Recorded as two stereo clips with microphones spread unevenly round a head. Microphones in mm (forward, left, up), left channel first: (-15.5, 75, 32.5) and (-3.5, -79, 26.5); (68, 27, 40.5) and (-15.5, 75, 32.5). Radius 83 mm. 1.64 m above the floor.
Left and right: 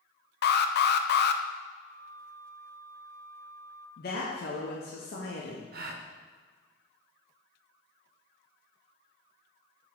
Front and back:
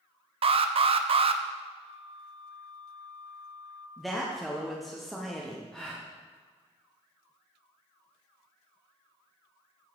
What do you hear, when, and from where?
0.4 s an alarm: 120° left, 0.5 m
1.8 s a flute: 70° left, 2.5 m
4.0 s a woman speaking: 60° left, 0.9 m
5.7 s a gasp: 115° right, 0.7 m